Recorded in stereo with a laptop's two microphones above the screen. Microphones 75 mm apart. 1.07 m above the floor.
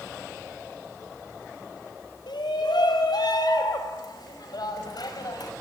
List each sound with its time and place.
2.3 s a shout: 80° left, 4 m; by 5.5 s 60° left (ahead or behind), 6 m